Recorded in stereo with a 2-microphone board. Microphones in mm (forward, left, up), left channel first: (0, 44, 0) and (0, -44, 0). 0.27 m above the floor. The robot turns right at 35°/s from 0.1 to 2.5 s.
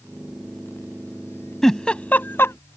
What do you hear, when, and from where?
1.6 s a giggle: 5° left (ahead or behind); by 2.6 s 30° left (ahead or behind)